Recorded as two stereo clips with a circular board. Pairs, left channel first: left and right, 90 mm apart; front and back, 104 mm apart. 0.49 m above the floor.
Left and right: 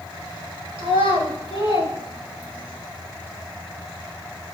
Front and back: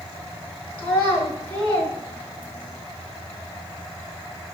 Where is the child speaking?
80° right, 6 m; by 2.8 s 85° right, 8 m.